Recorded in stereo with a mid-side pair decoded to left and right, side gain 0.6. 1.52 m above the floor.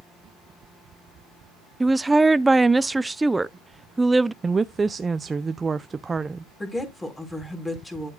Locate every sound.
1.8 s a woman speaking: 10° right, 0.7 m
4.4 s a woman speaking: 25° right, 0.5 m
6.6 s a woman speaking: 15° left, 4.5 m